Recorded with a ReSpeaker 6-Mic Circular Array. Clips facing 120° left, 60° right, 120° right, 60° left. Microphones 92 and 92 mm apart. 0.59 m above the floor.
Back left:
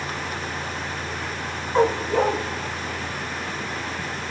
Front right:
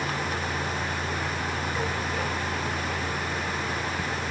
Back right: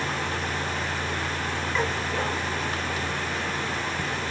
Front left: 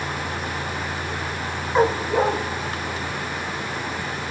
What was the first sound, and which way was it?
A dog barking, 105° left.